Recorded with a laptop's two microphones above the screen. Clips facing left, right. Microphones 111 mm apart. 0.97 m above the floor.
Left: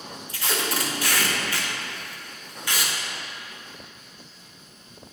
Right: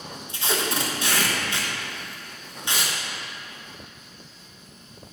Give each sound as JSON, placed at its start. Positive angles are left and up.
{"t": 0.3, "sound": "tape being pulled", "side_deg": -25, "distance_m": 1.1}